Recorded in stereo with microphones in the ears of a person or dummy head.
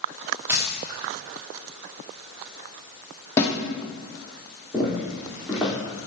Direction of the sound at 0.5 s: 10° right (ahead or behind).